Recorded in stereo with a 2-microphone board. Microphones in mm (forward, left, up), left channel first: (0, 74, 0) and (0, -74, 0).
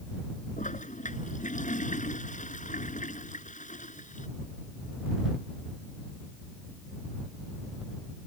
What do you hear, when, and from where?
0.6 s a toilet flushing: 55° left (ahead or behind)